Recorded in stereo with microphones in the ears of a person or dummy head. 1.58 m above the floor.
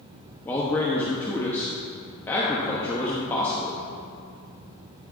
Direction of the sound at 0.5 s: 10° left (ahead or behind).